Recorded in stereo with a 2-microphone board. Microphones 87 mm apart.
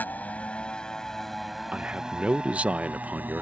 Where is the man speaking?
15° right (ahead or behind).